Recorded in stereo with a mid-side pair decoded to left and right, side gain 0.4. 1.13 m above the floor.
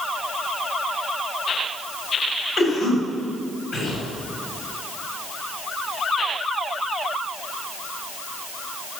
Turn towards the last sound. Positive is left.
turn(degrees=50)